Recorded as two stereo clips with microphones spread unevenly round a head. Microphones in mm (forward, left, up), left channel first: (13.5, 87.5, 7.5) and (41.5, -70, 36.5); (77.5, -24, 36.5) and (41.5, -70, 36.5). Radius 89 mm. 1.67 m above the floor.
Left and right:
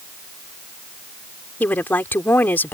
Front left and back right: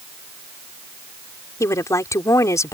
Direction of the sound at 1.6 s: 20° left.